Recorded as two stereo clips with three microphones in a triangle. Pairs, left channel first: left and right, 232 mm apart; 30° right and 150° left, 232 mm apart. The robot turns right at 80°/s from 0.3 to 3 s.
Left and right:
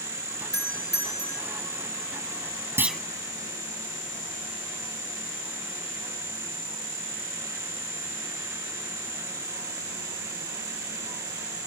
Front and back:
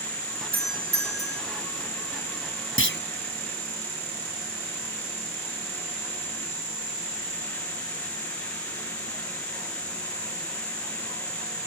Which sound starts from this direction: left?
A doorbell, at 0.5 s.